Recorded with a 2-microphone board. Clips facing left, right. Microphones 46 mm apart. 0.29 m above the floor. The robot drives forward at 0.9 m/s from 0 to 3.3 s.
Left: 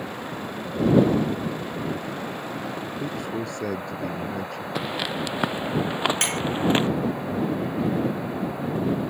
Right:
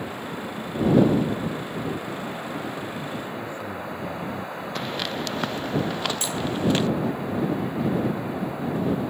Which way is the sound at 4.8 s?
10° left (ahead or behind).